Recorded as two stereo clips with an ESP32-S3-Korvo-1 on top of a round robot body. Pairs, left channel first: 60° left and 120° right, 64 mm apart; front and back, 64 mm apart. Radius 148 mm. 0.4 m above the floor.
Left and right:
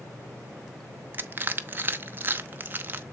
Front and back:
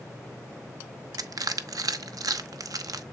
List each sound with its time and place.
1.1 s crushing: 175° right, 0.8 m